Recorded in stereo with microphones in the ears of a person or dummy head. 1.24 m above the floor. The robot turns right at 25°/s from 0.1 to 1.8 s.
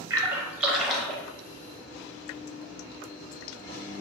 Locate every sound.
0.1 s a splash: 20° right (ahead or behind), 0.6 m; by 1.2 s 5° left (ahead or behind), 0.6 m